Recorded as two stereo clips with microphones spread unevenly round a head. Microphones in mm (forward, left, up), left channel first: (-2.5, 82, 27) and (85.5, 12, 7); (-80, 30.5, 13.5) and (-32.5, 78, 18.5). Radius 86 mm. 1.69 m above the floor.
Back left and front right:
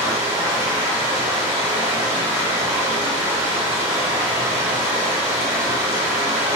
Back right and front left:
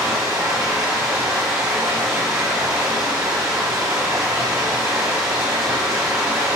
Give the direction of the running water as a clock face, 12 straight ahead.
11 o'clock.